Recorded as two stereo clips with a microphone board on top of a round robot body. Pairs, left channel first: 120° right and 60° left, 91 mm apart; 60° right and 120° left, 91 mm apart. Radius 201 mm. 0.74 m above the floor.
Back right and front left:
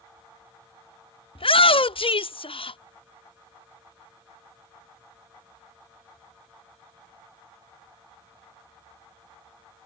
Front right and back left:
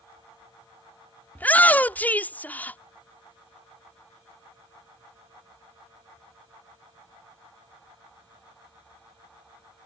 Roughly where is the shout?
Behind right.